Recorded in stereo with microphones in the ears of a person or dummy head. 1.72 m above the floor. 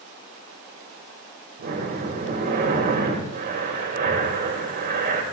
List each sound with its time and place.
1.6 s breathing: 50° right (ahead or behind), 2.5 m